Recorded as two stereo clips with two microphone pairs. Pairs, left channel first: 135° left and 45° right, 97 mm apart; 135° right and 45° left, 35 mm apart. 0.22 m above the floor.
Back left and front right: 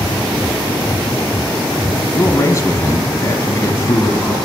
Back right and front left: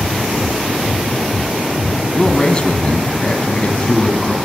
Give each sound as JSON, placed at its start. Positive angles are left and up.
{"t": 2.1, "sound": "a man speaking", "azimuth_deg": 175, "distance_m": 1.3}